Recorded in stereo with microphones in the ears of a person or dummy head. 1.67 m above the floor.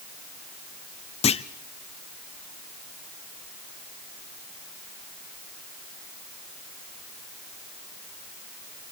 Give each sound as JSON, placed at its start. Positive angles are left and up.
{"t": 1.2, "sound": "a clunk", "side_deg": 30, "distance_m": 0.5}